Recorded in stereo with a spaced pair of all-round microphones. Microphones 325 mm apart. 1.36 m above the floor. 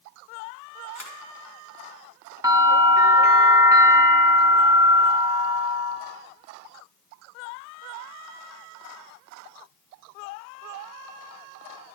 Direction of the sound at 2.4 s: 10° right (ahead or behind).